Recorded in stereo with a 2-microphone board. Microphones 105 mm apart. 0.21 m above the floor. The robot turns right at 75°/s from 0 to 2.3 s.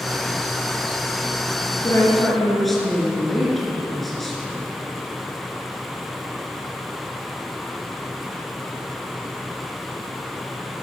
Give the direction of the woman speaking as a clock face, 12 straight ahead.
7 o'clock.